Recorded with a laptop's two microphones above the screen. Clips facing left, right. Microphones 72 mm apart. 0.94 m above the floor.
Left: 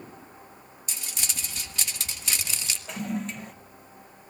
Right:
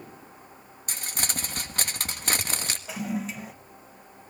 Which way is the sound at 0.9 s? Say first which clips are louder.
Right 5 dB; 50° right (ahead or behind).